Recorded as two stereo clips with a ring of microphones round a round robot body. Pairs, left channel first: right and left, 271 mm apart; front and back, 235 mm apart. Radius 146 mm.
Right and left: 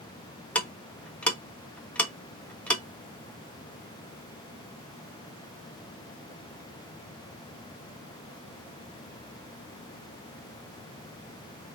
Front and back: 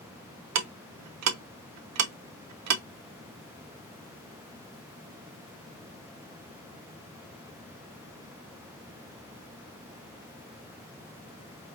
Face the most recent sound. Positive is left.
turn(degrees=-175)